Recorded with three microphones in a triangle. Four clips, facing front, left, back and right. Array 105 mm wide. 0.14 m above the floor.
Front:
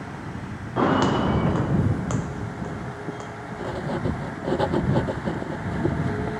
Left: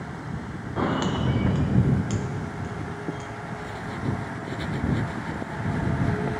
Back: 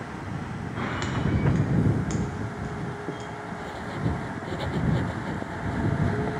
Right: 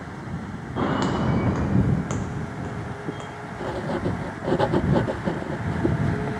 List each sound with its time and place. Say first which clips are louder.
0.8 s footsteps: right 2 dB, front 11 dB; 5° left; by 3.3 s 40° right
3.6 s writing: right 9 dB, front 7 dB; 60° right